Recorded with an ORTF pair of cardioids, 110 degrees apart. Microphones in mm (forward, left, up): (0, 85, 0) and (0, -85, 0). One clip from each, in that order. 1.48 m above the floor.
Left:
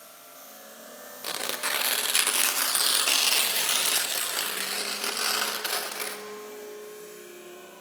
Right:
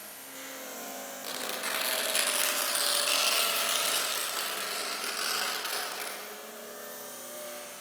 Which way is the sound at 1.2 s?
30° left.